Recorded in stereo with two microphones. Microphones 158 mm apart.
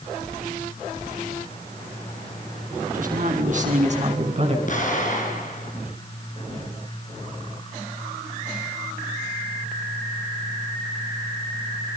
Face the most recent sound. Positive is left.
turn(degrees=55)  # may be behind; listen again after turning